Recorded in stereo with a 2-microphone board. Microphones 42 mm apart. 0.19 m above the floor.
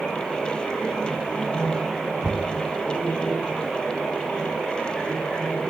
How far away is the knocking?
About 1.2 m.